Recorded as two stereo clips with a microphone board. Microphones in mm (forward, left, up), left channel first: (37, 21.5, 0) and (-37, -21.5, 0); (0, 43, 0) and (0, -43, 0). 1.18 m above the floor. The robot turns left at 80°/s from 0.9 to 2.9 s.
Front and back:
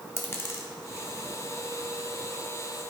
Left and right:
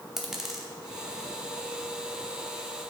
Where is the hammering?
I don't hear hammering.